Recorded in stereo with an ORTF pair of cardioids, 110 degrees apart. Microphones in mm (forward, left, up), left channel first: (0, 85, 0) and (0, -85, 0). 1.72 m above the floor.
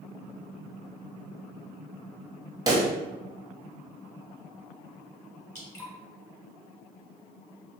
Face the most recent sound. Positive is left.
turn(degrees=15)